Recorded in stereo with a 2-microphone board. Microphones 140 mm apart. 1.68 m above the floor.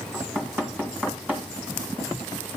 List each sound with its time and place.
0.1 s knocking: 10° right (ahead or behind), 1.7 m